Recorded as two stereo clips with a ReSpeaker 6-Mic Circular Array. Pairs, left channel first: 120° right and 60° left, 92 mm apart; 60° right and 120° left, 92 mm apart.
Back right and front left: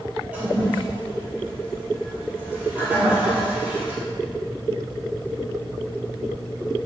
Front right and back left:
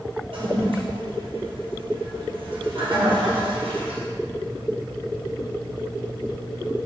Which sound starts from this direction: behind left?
A toilet flushing, at 0.3 s.